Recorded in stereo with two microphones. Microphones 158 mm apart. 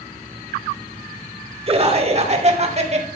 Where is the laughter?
40° right (ahead or behind), 1.8 m; by 3.1 s 45° right (ahead or behind), 2.5 m.